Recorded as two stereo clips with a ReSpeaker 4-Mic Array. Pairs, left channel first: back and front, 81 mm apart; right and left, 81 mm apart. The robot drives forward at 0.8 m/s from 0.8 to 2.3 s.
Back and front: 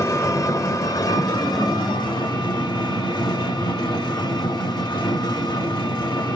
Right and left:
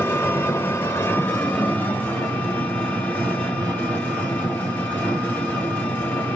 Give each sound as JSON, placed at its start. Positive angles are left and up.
{"t": 0.0, "sound": "an engine running", "azimuth_deg": -145, "distance_m": 1.1}